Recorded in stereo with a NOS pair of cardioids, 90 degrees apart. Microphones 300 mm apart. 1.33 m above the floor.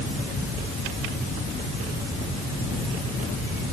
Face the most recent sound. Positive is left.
No sound to turn to.